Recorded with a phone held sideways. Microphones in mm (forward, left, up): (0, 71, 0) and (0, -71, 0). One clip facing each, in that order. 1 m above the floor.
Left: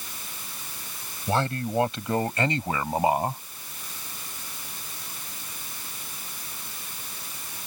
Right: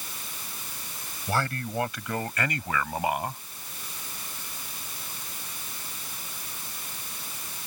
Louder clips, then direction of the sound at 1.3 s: Left 4 dB; 25° left (ahead or behind).